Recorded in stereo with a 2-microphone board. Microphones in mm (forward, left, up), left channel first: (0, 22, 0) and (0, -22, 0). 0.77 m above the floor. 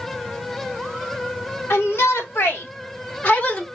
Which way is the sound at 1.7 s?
70° left (ahead or behind).